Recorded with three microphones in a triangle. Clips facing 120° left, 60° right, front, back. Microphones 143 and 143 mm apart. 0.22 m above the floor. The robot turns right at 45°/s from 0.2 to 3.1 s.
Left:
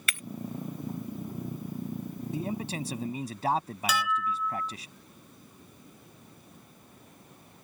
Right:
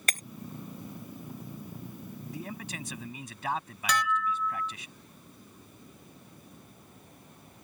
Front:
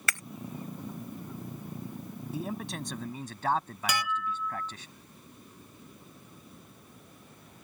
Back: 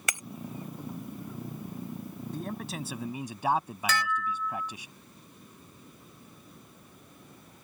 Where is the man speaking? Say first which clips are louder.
Left 8 dB, front 2 dB; 75° left; by 4.9 s 110° left.